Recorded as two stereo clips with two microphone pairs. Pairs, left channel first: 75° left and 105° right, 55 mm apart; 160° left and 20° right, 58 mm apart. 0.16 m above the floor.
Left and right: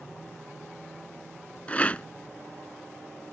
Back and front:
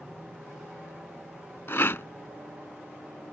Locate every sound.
1.7 s a rattle: 130° left